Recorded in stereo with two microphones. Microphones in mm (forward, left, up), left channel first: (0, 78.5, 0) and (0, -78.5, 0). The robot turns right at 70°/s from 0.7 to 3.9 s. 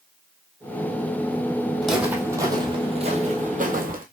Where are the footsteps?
5° left (ahead or behind), 1.6 m; by 4.0 s 60° right (ahead or behind), 1.4 m.